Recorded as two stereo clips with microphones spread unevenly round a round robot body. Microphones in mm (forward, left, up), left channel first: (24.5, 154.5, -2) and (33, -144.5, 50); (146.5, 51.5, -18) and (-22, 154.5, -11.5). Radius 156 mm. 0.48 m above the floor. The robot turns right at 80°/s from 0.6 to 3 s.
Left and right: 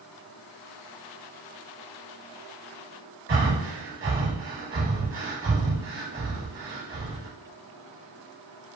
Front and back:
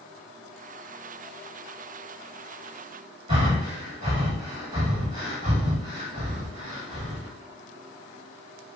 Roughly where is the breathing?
Behind right.